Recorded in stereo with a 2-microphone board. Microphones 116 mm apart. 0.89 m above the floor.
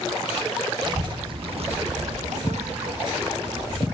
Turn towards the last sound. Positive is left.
turn(degrees=-30)  # may be behind; listen again after turning